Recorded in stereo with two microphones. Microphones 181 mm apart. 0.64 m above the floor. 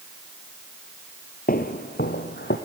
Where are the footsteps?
55° left (ahead or behind), 0.9 m; by 2.6 s 70° left (ahead or behind), 1.6 m.